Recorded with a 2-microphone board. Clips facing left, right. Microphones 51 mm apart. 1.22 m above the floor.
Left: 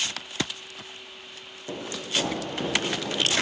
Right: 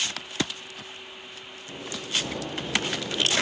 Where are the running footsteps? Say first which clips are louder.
Left 2 dB; 70° left (ahead or behind), 4 m; by 3.4 s 65° left (ahead or behind), 6 m.